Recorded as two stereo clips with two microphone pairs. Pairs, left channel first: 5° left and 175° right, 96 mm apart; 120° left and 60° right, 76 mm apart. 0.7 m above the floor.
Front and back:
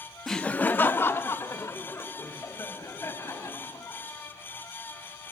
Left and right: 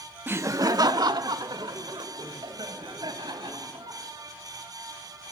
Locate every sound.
0.3 s laughter: 75° right, 0.6 m; by 4.0 s 50° right, 5 m